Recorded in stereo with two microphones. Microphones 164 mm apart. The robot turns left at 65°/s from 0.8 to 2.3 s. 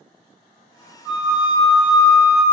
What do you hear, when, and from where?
1.1 s a flute: 115° right, 1.3 m; by 2.4 s 160° left, 1.3 m